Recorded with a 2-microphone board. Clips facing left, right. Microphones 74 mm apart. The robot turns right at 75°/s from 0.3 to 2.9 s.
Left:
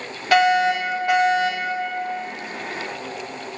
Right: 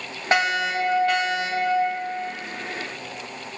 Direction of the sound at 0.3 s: 35° right.